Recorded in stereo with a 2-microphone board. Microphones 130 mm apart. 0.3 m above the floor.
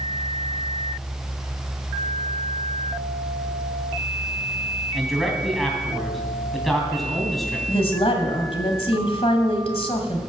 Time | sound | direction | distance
4.9 | a man speaking | centre (ahead or behind) | 2.5 m
7.7 | a woman speaking | 50° left (ahead or behind) | 1.7 m